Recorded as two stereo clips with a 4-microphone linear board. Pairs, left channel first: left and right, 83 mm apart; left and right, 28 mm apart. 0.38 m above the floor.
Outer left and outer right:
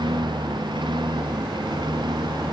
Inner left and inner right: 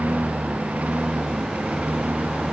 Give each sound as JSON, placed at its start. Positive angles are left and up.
{"t": 0.0, "sound": "a lawn mower", "side_deg": -65}